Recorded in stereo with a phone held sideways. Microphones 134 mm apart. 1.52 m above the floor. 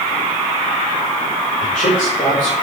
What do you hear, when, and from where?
1.6 s a man speaking: 75° left (ahead or behind), 4.5 m